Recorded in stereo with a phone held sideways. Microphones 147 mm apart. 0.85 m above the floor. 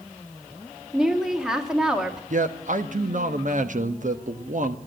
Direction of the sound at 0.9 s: 5° right (ahead or behind).